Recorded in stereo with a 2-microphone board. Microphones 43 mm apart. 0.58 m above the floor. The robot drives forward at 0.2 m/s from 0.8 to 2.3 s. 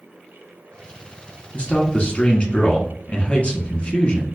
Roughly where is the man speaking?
Left.